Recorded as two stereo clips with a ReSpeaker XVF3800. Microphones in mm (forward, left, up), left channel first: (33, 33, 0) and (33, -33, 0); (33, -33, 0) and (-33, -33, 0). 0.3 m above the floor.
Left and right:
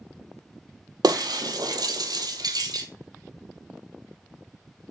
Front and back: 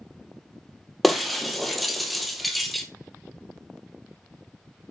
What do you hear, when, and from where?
1.0 s breaking glass: 90° right, 0.9 m